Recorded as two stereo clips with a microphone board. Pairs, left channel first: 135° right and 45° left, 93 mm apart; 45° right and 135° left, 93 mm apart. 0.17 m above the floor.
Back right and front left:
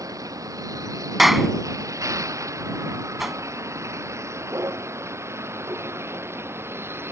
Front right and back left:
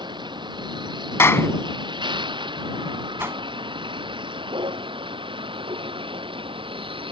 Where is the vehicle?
100° left; by 7.1 s 110° left.